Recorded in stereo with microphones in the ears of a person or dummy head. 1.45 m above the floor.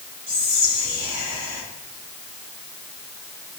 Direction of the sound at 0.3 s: 15° left (ahead or behind).